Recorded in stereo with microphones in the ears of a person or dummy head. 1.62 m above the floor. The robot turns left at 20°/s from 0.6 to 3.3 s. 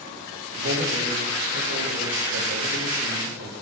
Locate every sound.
0.6 s a man speaking: 75° right, 0.9 m; by 3.5 s 125° right, 0.9 m